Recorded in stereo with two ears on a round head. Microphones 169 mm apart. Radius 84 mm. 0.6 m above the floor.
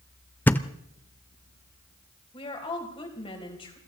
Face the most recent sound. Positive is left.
turn(degrees=25)  # may be behind; listen again after turning